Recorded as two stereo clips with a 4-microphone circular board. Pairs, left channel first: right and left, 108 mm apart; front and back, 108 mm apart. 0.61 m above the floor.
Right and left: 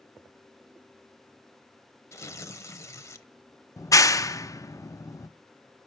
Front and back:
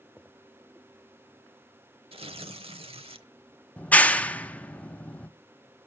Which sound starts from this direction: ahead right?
A clap, at 3.8 s.